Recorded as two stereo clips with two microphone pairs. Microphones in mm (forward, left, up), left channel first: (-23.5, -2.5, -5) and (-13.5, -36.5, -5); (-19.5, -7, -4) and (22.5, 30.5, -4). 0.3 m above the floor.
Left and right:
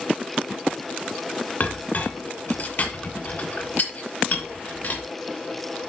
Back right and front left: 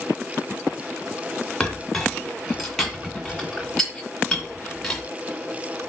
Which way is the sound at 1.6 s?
135° left.